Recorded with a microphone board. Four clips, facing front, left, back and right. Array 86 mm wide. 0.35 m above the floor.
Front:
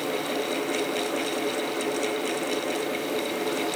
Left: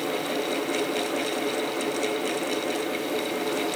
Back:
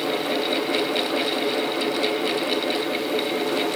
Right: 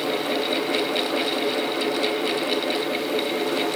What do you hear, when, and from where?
Only background noise.